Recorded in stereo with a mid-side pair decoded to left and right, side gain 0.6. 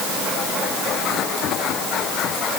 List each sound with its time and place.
Only background noise.